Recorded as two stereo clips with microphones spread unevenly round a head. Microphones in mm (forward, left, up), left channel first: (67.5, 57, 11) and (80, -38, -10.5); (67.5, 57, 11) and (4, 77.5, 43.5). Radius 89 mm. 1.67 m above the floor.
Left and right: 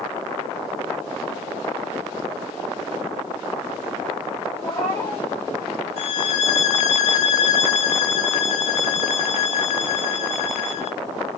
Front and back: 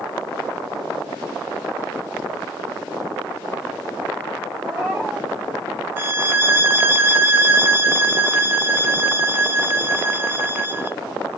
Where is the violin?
105° left, 0.6 m.